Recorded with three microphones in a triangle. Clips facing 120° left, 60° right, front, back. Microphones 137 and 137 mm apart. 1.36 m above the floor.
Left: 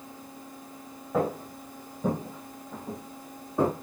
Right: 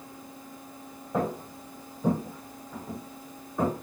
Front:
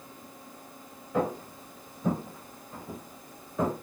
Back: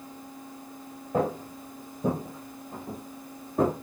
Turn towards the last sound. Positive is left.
turn(degrees=170)